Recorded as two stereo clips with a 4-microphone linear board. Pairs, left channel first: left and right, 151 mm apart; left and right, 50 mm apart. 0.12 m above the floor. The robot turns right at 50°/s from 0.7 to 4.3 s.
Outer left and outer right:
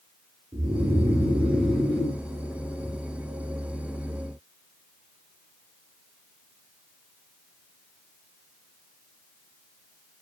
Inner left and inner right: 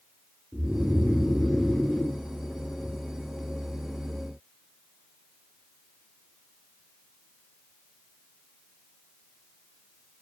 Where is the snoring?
45° right, 1.1 m; by 3.0 s 65° left, 1.1 m.